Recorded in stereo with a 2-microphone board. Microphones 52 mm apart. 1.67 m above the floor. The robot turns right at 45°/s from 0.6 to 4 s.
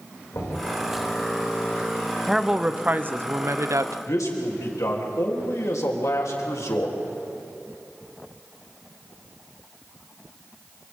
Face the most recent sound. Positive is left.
turn(degrees=80)